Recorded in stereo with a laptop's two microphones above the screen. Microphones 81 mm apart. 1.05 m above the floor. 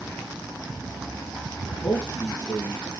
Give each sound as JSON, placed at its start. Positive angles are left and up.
{"t": 1.7, "sound": "a man speaking", "side_deg": 65, "distance_m": 1.6}